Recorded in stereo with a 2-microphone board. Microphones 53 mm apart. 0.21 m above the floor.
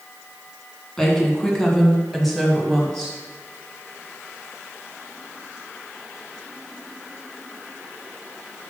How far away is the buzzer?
I don't hear a buzzer.